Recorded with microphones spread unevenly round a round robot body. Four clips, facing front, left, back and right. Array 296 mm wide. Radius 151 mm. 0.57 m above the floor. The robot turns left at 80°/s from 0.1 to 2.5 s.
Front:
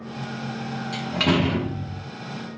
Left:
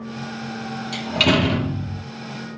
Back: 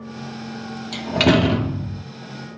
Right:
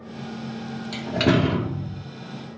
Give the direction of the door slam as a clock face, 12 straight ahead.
5 o'clock.